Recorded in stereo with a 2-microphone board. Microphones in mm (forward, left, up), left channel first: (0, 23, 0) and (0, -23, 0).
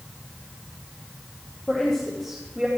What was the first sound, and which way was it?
A woman speaking, 15° left (ahead or behind).